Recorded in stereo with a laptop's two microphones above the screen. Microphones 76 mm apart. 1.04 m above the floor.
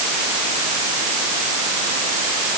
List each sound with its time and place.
Only background noise.